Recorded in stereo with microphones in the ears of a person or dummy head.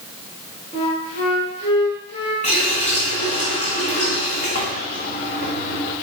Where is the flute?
35° left (ahead or behind), 2.5 m.